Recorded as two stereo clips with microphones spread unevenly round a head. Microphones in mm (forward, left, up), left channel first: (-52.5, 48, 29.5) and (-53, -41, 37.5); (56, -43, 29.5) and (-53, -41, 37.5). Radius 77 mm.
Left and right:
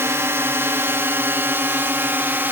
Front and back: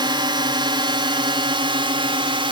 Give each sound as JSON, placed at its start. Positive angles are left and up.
{"t": 0.0, "sound": "a drone", "azimuth_deg": -145}